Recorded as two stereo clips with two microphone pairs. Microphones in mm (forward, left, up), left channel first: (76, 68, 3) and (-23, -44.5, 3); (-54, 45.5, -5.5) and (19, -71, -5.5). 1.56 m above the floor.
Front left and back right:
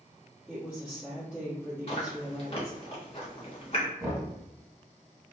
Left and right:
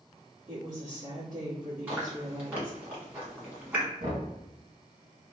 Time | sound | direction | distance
0.5 | a woman speaking | 50° right | 1.0 m
1.9 | chewing | 15° left | 1.1 m
4.0 | knocking | 65° right | 1.7 m